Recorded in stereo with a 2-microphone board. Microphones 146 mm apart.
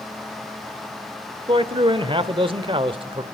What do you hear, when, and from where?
1.5 s a man speaking: 35° right (ahead or behind), 1.1 m